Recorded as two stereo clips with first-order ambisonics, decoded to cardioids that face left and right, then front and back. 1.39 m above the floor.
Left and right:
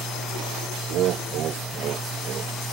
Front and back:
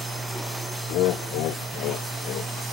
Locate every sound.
0.9 s laughter: 45° right; by 2.7 s 35° right